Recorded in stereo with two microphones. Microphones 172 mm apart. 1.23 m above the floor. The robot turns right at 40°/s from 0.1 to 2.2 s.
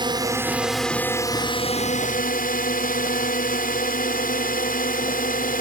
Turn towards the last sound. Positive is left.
turn(degrees=55)